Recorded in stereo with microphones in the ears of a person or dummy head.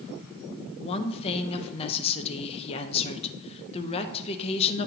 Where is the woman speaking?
30° left (ahead or behind), 0.8 m.